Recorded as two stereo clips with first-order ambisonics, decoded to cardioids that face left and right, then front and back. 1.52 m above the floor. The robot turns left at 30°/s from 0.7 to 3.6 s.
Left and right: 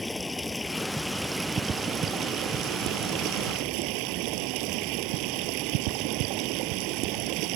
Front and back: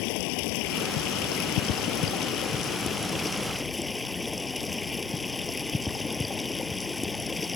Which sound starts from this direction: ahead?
Running water, at 0.0 s.